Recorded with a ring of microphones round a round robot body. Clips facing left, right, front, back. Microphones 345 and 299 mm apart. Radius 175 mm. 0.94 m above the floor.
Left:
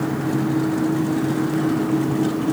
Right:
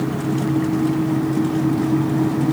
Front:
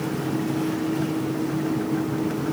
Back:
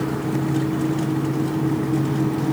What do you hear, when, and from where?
Only background noise.